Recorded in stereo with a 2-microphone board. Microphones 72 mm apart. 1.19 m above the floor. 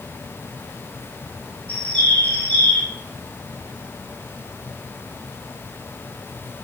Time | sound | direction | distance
1.7 | a bird | 20° left (ahead or behind) | 0.6 m